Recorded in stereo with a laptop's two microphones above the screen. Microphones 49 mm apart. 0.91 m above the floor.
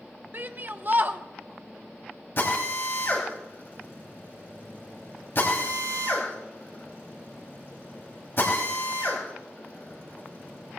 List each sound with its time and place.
0.3 s a shout: 45° right (ahead or behind), 0.8 m
2.4 s a drill: 55° left (ahead or behind), 4 m